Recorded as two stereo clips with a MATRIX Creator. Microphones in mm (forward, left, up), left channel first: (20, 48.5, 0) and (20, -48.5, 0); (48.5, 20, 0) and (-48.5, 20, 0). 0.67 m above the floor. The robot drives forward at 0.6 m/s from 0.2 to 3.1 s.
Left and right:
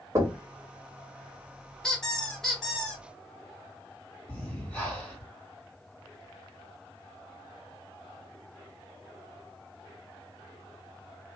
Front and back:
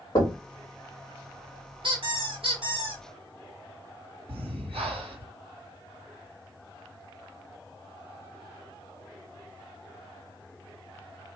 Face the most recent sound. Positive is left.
turn(degrees=170)